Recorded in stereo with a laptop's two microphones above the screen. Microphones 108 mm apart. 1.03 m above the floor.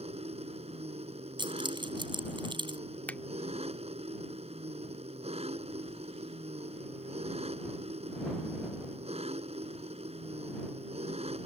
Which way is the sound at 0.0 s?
75° right (ahead or behind).